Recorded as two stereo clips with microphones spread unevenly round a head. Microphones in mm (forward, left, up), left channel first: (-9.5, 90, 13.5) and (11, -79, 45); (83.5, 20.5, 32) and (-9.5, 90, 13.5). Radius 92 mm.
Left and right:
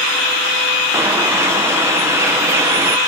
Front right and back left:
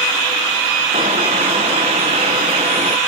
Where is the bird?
155° right.